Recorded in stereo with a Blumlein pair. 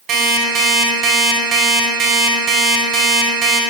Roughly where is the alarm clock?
Ahead right.